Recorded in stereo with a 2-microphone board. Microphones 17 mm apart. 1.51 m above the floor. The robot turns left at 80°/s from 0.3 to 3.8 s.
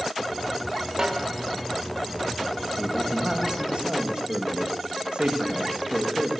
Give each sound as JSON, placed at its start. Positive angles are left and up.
{"t": 1.0, "sound": "a snare drum", "azimuth_deg": -110, "distance_m": 1.6}
{"t": 2.8, "sound": "a man speaking", "azimuth_deg": 10, "distance_m": 2.5}